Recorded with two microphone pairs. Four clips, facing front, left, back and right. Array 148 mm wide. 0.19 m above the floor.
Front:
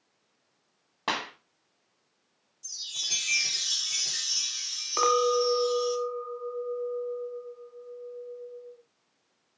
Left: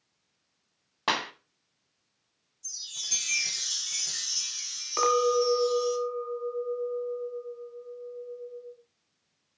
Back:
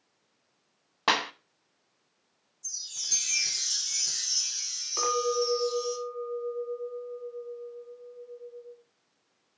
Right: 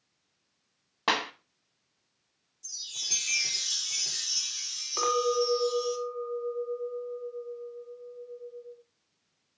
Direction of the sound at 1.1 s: 175° right.